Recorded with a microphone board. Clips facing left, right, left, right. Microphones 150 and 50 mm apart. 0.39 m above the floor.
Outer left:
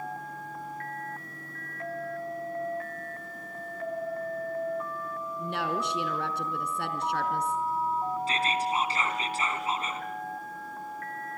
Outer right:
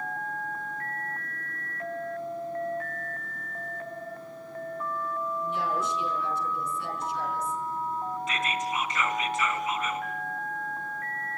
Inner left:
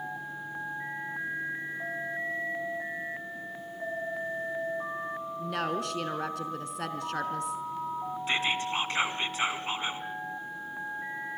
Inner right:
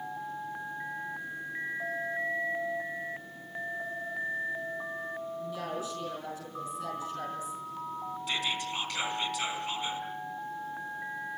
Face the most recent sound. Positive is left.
turn(degrees=30)  # may be behind; listen again after turning